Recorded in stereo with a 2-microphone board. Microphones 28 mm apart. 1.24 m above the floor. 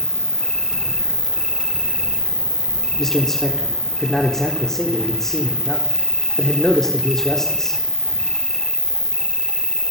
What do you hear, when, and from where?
0.0 s an insect: 20° left (ahead or behind), 1.6 m
3.0 s a man speaking: 20° left (ahead or behind), 4 m